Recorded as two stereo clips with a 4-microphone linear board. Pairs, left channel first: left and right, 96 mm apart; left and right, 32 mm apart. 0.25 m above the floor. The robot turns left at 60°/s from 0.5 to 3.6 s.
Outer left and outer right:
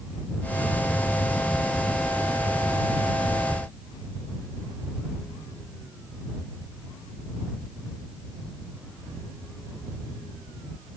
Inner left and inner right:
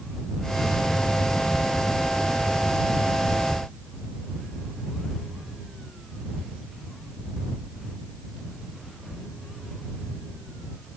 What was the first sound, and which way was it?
Only background noise.